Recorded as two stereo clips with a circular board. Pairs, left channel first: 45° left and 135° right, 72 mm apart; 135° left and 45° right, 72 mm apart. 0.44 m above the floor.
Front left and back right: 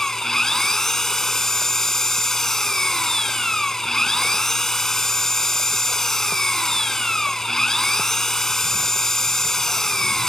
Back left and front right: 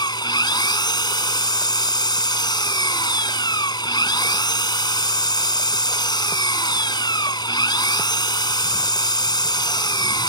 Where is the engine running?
130° left.